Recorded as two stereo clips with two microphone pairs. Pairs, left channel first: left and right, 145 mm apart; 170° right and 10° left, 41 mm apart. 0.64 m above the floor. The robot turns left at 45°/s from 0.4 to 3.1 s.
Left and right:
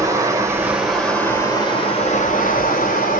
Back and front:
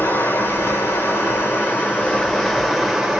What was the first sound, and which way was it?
Running water, 155° right.